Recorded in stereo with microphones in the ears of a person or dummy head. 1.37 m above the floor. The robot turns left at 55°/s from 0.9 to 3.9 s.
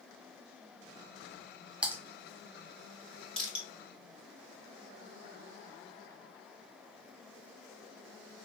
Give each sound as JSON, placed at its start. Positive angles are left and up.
{"t": 1.8, "sound": "typing on a keyboard", "side_deg": -10, "distance_m": 0.7}
{"t": 3.4, "sound": "crushing", "side_deg": 0, "distance_m": 1.7}